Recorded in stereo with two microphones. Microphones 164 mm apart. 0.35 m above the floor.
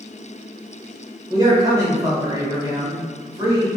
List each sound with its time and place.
1.3 s a man speaking: 20° right (ahead or behind), 1.5 m